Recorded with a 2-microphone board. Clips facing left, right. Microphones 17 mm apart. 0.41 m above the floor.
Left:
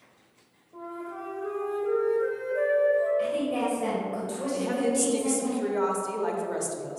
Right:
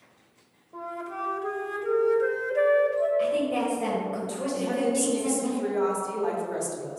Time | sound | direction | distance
0.7 | a flute | 50° right (ahead or behind) | 1.3 m
3.2 | a woman speaking | 5° right (ahead or behind) | 1.5 m
4.5 | a woman speaking | 20° left (ahead or behind) | 1.2 m